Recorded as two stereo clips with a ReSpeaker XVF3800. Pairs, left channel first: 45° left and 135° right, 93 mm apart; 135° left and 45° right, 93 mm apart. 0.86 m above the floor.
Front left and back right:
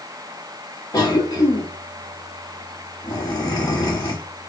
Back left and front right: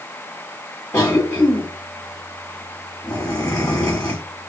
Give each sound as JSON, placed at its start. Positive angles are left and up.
{"t": 0.9, "sound": "a cough", "azimuth_deg": 75, "distance_m": 1.7}